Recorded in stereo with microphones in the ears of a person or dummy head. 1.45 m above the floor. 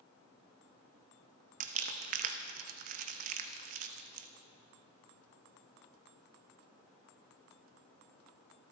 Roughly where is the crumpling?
Right.